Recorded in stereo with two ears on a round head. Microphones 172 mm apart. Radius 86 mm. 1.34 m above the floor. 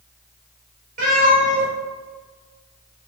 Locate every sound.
1.0 s a cat meowing: 45° right (ahead or behind), 1.9 m